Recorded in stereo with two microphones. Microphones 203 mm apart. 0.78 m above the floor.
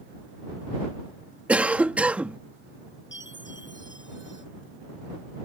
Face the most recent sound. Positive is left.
turn(degrees=65)  # may be behind; listen again after turning